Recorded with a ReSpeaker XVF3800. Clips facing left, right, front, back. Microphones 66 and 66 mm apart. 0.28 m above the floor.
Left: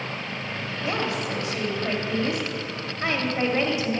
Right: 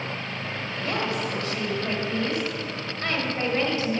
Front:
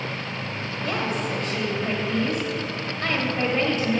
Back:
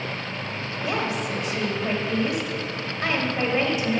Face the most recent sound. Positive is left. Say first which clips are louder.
# left 1 dB, even
turn(degrees=120)